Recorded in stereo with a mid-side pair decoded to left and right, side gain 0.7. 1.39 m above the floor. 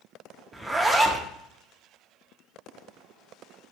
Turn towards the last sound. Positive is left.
turn(degrees=-10)